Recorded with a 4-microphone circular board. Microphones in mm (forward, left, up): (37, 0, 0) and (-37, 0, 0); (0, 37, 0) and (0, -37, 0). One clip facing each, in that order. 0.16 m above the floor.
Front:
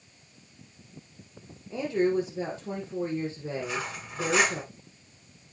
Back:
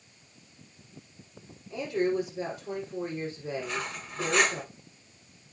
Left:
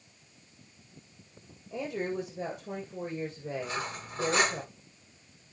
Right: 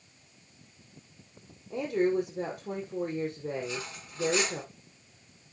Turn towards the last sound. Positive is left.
turn(degrees=80)